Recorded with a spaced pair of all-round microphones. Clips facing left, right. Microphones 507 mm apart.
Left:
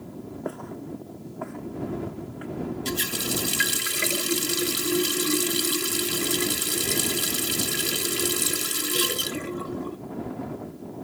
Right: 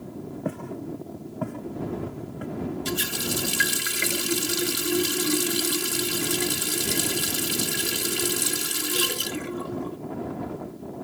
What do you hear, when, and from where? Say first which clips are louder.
0.5 s footsteps: right 3 dB; 45° right (ahead or behind); by 2.5 s 60° right (ahead or behind)
2.9 s a running tap: even; 5° right (ahead or behind)